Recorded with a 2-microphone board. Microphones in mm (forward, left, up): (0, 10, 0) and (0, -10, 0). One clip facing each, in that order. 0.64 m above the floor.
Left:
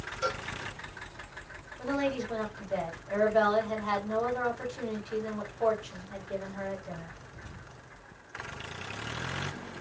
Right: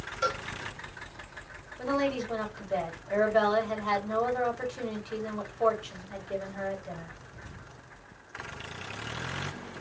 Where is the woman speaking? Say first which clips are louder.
Right 2 dB; 20° right (ahead or behind), 1.4 m.